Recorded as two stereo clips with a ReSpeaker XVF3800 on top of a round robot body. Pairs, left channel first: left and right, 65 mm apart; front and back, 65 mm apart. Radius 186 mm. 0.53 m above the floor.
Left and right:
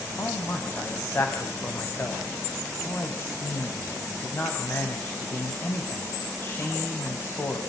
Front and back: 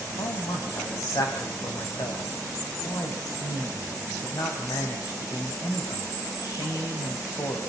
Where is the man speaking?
30° left, 4 m.